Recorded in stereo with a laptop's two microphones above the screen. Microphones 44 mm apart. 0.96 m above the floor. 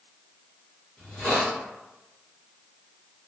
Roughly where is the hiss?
Centre.